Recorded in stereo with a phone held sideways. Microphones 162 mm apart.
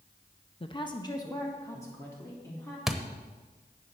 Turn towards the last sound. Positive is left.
turn(degrees=0)  # may be behind; listen again after turning